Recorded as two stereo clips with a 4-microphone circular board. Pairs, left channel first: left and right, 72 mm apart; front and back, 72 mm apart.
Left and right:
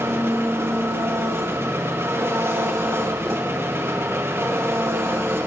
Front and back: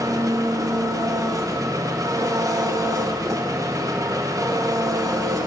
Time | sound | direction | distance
0.0 | an engine running | 145° right | 1.0 m